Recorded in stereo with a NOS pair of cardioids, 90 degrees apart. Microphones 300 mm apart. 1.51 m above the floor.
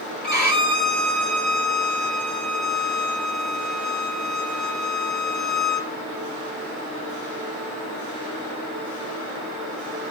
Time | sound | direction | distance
0.2 | a violin | 30° left | 5.5 m